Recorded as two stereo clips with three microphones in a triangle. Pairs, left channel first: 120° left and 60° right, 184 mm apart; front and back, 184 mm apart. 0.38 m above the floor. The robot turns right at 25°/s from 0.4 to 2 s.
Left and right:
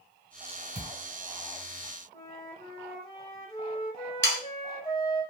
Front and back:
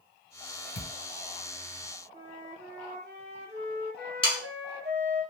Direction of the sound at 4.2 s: 65° right.